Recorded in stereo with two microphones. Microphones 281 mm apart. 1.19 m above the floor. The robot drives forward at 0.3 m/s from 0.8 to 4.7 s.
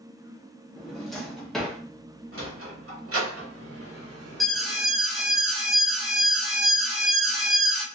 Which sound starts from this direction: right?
A sliding door, at 2.3 s.